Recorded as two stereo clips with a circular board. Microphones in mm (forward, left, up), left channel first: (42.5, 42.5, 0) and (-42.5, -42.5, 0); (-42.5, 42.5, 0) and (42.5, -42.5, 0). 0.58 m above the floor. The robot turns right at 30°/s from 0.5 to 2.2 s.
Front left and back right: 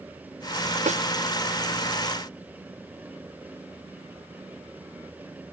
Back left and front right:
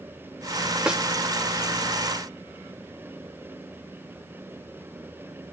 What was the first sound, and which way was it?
A snare drum, 125° right.